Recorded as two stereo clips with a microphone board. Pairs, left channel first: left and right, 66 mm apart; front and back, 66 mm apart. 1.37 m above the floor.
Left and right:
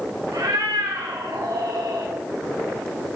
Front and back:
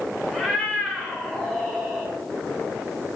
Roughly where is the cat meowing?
Right.